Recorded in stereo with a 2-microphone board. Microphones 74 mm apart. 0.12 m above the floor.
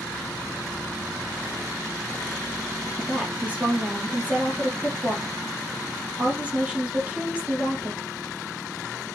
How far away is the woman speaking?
About 3.5 m.